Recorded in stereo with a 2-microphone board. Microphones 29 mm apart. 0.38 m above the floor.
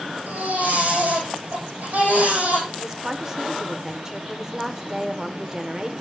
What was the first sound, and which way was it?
A baby crying, 85° right.